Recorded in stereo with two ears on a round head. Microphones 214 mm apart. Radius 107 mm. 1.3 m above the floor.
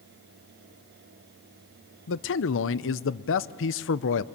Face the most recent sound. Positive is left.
turn(degrees=60)  # may be behind; listen again after turning